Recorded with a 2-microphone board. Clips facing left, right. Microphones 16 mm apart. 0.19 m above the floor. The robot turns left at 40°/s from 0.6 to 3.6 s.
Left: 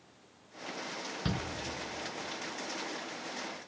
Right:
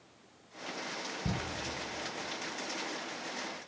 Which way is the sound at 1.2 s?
60° left (ahead or behind).